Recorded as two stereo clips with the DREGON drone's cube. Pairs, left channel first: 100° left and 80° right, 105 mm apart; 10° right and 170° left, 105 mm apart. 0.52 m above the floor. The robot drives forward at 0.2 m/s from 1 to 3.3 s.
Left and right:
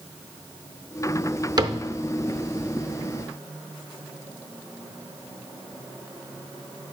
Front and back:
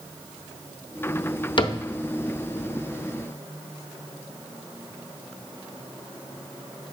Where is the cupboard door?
40° right, 0.5 m; by 1.8 s 45° right, 0.5 m.